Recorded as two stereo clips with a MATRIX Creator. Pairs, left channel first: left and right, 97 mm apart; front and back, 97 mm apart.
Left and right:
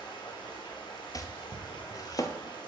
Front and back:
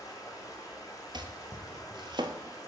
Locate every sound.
0.0 s running water: 55° left, 2.0 m
1.1 s chopping: 140° left, 0.7 m